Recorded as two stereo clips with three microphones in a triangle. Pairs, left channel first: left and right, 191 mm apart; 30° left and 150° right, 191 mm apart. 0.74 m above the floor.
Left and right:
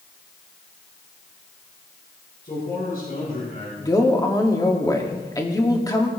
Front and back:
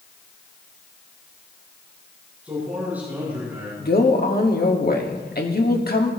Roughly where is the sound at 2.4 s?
Behind left.